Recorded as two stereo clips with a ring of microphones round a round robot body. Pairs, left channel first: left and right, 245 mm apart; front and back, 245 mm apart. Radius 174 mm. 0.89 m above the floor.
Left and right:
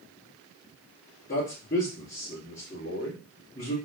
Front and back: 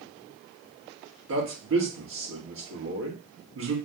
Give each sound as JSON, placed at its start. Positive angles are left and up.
{"t": 1.3, "sound": "a man speaking", "azimuth_deg": 155, "distance_m": 1.4}